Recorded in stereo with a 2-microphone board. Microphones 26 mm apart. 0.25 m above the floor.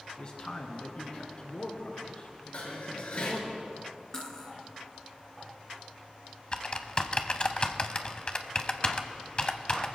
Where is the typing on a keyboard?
35° left (ahead or behind), 0.7 m.